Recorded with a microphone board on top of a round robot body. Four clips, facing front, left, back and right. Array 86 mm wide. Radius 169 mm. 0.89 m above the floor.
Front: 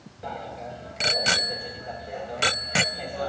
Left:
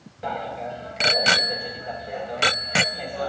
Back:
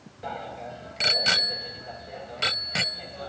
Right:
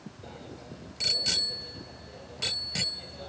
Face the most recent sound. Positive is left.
turn(degrees=60)